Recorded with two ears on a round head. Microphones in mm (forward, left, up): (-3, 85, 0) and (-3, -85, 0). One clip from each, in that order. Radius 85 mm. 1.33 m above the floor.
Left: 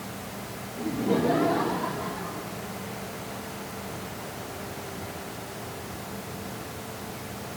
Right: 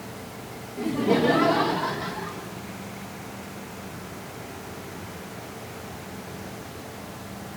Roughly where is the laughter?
Right.